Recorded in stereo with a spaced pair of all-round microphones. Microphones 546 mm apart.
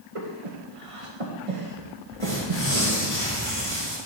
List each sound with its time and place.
0.1 s breathing: 75° right (ahead or behind), 1.3 m
2.2 s tearing paper: 70° right (ahead or behind), 3.5 m